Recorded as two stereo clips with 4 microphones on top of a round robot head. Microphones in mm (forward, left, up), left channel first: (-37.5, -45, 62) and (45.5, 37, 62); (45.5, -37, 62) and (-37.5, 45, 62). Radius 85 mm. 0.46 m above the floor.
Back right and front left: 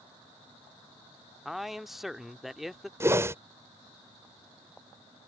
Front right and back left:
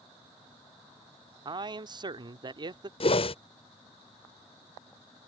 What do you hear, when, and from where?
1.4 s a man speaking: 130° left
3.0 s a whoosh: 20° right